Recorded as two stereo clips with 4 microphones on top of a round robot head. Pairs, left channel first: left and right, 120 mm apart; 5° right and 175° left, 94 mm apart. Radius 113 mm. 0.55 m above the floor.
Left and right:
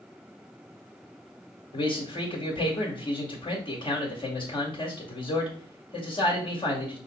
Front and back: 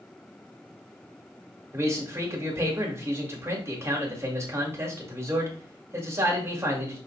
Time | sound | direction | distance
1.7 | a man speaking | 120° left | 2 m